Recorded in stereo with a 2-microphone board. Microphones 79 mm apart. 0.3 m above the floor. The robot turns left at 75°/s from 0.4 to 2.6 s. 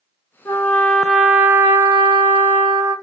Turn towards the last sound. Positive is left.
turn(degrees=-120)